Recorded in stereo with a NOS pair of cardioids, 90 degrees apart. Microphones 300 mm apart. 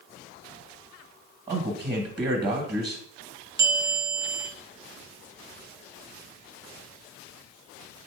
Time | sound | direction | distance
1.5 | a man speaking | 30° right | 1.1 m
3.6 | a bell | 40° right | 0.7 m